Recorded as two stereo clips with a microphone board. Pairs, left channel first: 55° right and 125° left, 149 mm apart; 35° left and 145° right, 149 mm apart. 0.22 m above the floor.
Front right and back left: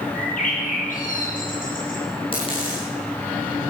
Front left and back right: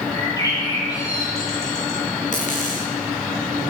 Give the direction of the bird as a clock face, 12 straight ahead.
1 o'clock.